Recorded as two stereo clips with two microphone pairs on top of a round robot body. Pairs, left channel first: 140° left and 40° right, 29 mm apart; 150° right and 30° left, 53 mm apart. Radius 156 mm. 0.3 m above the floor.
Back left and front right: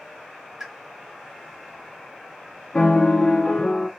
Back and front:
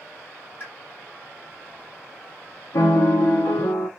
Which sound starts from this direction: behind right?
A piano, at 2.7 s.